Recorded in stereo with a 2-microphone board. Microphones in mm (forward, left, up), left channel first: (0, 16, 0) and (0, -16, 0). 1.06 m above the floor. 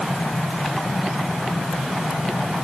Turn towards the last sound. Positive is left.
No sound to turn to.